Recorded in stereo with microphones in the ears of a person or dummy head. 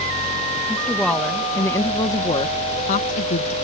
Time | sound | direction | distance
0.7 | a woman speaking | centre (ahead or behind) | ?